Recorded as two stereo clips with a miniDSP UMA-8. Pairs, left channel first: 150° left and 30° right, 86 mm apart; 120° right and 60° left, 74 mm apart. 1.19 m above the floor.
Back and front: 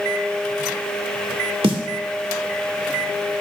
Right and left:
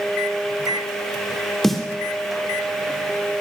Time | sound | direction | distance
1.6 | a snare drum | 30° right | 2 m